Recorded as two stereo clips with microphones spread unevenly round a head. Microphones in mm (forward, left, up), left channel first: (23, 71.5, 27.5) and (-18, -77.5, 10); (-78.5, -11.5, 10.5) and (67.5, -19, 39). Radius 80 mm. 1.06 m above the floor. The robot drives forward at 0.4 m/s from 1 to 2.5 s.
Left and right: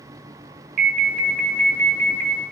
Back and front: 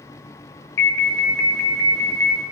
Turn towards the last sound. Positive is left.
turn(degrees=-130)